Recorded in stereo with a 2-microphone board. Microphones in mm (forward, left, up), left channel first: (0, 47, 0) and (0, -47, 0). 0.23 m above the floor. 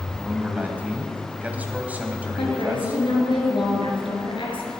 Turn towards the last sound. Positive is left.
turn(degrees=65)  # may be behind; listen again after turning